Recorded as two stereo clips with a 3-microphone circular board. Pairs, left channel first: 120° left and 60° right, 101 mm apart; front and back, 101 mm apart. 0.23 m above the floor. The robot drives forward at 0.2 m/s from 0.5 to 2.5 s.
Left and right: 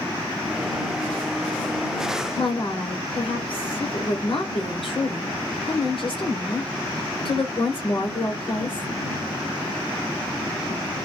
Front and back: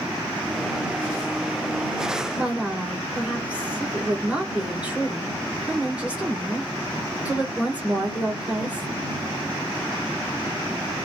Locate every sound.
2.4 s a woman speaking: 105° left, 2.5 m